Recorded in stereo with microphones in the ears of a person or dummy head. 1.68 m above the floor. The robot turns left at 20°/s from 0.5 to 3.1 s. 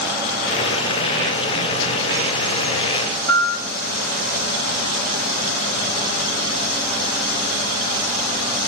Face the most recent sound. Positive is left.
turn(degrees=20)  # may be behind; listen again after turning